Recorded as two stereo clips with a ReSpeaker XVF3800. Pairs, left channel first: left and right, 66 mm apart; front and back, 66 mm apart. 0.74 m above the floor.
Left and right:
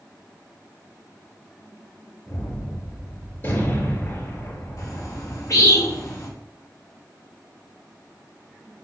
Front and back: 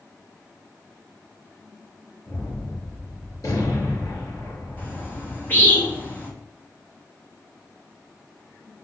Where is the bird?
60° left, 2.5 m.